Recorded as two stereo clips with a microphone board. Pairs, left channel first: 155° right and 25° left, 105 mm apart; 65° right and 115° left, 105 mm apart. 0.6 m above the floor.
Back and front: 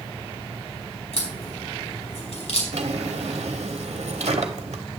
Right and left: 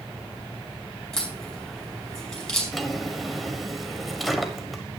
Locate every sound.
1.1 s a crack: 150° right, 5 m
2.7 s a drawer: 25° left, 1.1 m